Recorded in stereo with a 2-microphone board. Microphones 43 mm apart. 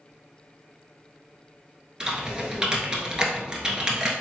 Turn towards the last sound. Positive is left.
turn(degrees=-20)  # may be behind; listen again after turning